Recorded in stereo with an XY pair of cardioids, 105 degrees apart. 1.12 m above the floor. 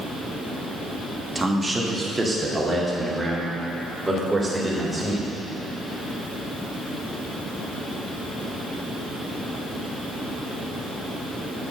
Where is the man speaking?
15° right, 1.5 m; by 5.3 s 10° right, 4 m.